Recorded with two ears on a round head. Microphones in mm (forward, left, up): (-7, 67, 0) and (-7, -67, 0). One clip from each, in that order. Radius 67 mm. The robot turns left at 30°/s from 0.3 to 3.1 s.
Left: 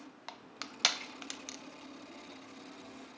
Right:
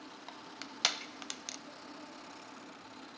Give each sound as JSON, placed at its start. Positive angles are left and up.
{"t": 0.3, "sound": "crushing", "side_deg": 20, "distance_m": 0.6}